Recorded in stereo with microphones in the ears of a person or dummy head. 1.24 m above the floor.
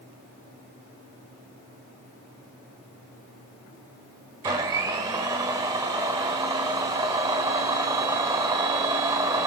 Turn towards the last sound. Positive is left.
turn(degrees=-20)  # may be behind; listen again after turning